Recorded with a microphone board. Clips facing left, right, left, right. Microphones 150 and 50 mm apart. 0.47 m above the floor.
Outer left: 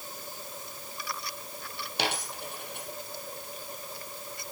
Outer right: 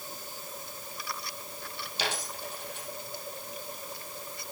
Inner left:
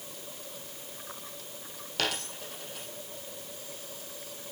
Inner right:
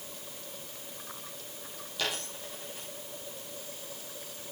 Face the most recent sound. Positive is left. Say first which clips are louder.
# outer left 2 dB, inner left 2 dB
turn(degrees=65)  # may be behind; listen again after turning